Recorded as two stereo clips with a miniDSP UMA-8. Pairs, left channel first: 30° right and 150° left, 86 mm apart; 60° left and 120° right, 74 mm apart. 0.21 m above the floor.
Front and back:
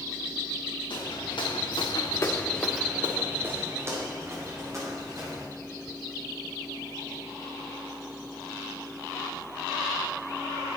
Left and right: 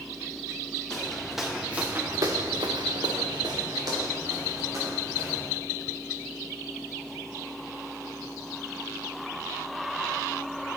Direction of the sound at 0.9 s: 25° right.